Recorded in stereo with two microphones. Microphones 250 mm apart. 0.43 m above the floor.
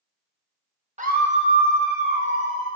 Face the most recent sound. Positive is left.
turn(degrees=-60)  # may be behind; listen again after turning